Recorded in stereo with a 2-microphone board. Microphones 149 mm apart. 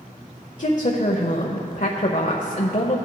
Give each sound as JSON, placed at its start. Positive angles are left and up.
{"t": 0.6, "sound": "a woman speaking", "side_deg": 60, "distance_m": 0.7}